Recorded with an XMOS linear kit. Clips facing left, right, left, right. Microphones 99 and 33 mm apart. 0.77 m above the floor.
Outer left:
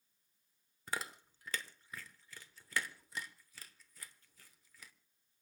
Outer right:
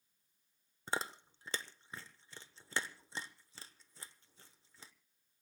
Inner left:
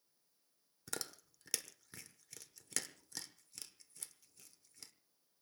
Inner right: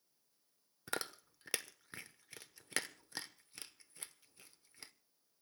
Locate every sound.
0.9 s chewing: 25° right (ahead or behind), 1.0 m